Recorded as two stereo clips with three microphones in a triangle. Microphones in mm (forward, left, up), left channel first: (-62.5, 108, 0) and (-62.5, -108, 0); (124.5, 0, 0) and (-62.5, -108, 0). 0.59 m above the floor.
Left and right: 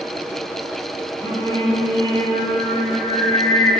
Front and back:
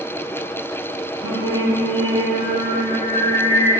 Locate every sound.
1.2 s singing: 160° left, 2 m